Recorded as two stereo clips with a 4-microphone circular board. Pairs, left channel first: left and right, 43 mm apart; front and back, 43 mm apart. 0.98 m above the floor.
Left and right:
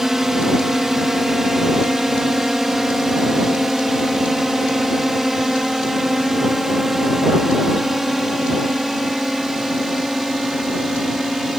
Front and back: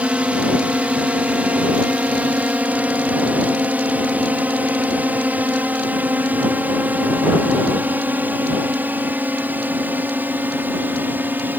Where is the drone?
160° right; by 11.6 s 170° right.